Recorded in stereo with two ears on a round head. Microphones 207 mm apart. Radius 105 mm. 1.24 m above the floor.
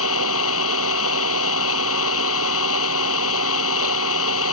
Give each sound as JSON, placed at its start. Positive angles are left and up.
{"t": 0.0, "sound": "an engine running", "side_deg": 70}